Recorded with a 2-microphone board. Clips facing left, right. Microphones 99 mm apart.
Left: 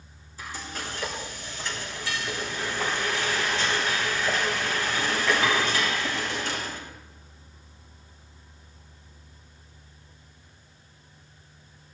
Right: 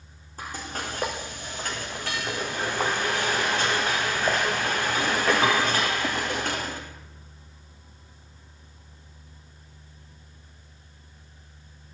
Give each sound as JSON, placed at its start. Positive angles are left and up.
{"t": 0.4, "sound": "frying", "side_deg": -55, "distance_m": 2.5}